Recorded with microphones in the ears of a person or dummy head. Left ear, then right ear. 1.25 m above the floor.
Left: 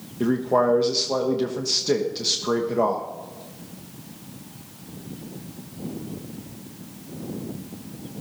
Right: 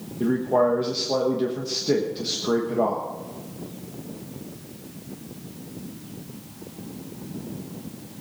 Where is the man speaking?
25° left (ahead or behind), 1.2 m.